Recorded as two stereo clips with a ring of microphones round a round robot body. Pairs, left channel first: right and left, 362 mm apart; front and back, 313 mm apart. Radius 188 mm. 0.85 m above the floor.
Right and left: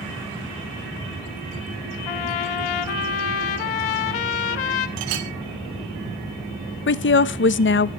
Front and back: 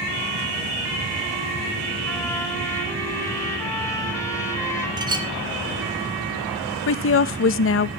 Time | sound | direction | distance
2.1 | a trumpet | 80° right | 1.3 m
5.0 | a clink | 105° left | 2 m
6.9 | a woman speaking | 40° right | 0.7 m